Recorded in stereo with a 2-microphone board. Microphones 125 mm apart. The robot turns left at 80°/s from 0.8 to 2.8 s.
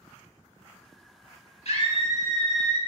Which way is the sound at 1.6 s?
80° left.